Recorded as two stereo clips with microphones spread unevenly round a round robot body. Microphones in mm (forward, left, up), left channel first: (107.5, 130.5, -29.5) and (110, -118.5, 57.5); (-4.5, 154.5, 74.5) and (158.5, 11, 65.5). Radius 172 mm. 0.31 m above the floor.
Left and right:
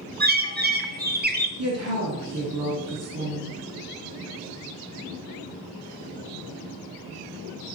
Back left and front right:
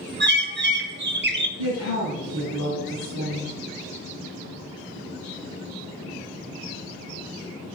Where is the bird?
30° right, 1.7 m.